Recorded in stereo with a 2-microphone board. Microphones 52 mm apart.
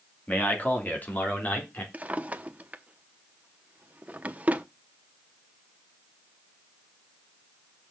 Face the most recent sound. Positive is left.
turn(degrees=-30)  # may be behind; listen again after turning